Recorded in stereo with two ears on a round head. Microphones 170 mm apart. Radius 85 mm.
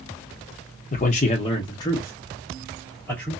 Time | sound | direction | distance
0.9 | a man speaking | 40° left (ahead or behind) | 0.5 m